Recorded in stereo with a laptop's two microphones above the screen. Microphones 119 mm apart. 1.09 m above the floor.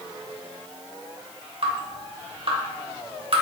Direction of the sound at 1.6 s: 50° right (ahead or behind).